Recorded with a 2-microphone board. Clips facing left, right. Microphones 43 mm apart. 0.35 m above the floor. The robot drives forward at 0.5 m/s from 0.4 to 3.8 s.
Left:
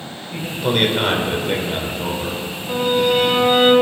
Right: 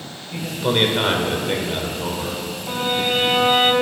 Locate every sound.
0.3 s a man speaking: centre (ahead or behind), 1.1 m
2.7 s a violin: 35° right (ahead or behind), 1.9 m; by 3.7 s 30° right (ahead or behind), 2.5 m